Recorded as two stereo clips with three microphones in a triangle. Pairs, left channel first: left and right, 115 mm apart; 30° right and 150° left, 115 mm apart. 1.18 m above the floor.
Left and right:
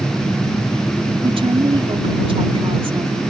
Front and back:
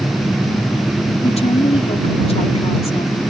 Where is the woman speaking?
50° right.